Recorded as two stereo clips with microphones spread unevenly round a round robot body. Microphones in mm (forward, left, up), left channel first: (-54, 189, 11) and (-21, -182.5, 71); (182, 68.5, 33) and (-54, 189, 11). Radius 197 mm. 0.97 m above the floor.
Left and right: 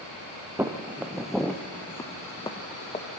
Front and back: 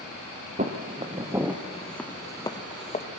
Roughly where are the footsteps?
Behind right.